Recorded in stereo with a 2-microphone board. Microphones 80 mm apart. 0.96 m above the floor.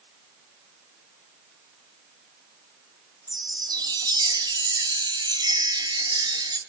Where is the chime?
65° right (ahead or behind), 1.6 m.